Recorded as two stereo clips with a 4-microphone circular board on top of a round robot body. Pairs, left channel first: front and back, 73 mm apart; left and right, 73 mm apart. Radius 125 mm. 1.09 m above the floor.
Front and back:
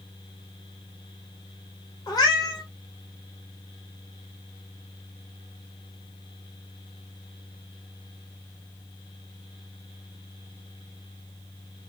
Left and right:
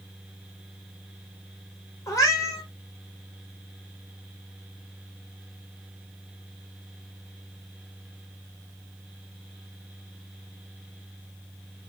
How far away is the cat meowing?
About 1.0 m.